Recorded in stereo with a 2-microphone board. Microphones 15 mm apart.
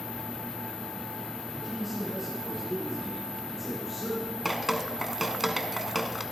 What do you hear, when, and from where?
1.5 s a man speaking: 5° right (ahead or behind), 6.5 m; by 4.3 s 10° right (ahead or behind), 4.5 m
4.5 s dripping: 15° right (ahead or behind), 1.0 m